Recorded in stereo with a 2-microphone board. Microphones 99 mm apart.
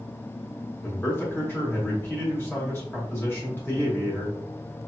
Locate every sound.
0.8 s a man speaking: 20° left (ahead or behind), 0.9 m